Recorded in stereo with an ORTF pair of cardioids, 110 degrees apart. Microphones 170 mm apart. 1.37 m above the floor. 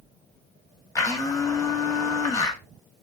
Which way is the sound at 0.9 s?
20° left.